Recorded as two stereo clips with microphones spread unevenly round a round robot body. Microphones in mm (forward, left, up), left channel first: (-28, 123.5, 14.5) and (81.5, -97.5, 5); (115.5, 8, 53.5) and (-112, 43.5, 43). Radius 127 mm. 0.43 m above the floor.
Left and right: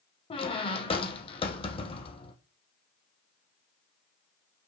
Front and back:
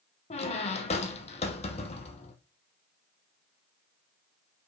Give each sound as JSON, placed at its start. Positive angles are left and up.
{"t": 0.3, "sound": "a squeak", "azimuth_deg": 50, "distance_m": 0.9}